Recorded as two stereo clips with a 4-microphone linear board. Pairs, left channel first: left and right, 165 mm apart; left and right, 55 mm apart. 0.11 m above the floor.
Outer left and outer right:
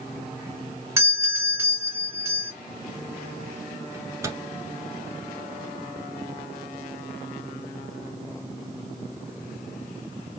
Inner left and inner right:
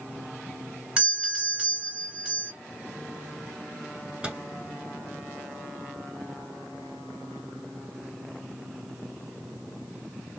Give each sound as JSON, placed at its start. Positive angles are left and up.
{"t": 1.0, "sound": "a doorbell", "side_deg": -15, "distance_m": 1.8}
{"t": 3.9, "sound": "a microwave", "side_deg": -15, "distance_m": 1.0}